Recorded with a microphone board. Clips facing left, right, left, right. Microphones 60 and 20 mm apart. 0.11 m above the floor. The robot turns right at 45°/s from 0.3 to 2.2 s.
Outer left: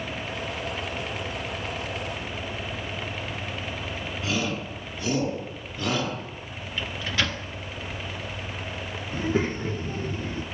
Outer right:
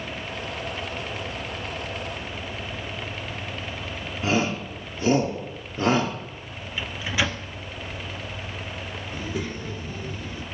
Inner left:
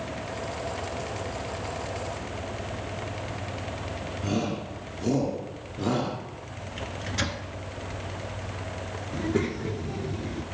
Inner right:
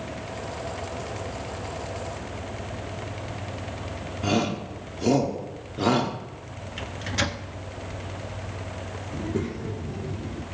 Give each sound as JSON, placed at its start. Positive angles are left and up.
{"t": 4.2, "sound": "a shout", "side_deg": -30, "distance_m": 1.6}
{"t": 6.8, "sound": "a microwave", "side_deg": -10, "distance_m": 0.9}
{"t": 9.1, "sound": "a child speaking", "side_deg": 35, "distance_m": 0.8}